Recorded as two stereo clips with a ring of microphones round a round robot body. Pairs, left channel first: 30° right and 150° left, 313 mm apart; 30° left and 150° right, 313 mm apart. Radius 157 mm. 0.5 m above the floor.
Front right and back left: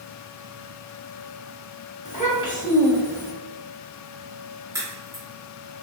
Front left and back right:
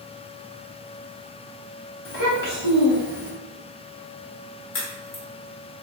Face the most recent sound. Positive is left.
turn(degrees=70)